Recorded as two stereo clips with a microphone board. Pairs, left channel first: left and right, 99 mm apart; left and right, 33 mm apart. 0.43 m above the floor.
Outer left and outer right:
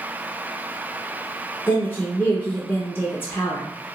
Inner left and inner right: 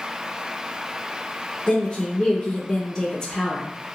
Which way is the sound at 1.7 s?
20° left (ahead or behind).